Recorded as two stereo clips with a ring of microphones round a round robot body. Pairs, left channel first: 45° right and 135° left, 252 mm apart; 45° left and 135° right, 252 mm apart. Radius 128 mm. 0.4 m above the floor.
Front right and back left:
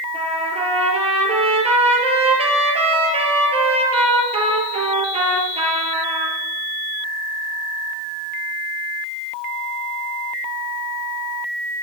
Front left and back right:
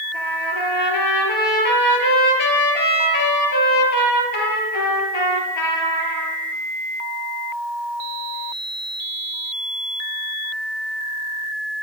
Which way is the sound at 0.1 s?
65° left.